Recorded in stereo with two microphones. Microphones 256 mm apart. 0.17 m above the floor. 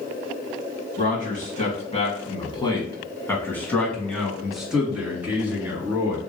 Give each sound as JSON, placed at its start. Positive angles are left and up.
{"t": 1.0, "sound": "a man speaking", "side_deg": 30, "distance_m": 1.7}